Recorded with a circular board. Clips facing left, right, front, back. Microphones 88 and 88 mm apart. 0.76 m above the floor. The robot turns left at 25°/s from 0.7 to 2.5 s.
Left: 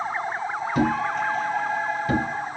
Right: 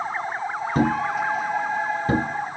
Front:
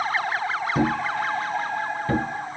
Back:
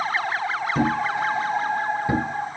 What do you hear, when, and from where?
0.8 s a thud: 80° right, 0.8 m; by 2.6 s 125° right, 0.8 m